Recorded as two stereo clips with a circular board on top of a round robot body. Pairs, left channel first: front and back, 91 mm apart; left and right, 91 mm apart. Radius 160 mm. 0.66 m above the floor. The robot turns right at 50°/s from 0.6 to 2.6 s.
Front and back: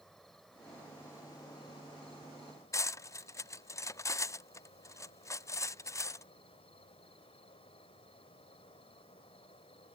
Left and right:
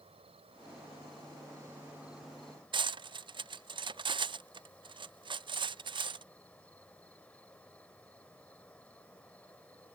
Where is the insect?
85° right; by 10.0 s 15° left.